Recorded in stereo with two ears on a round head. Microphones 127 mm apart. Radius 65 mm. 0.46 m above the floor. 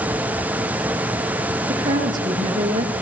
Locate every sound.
1.7 s a woman speaking: 30° right (ahead or behind), 8 m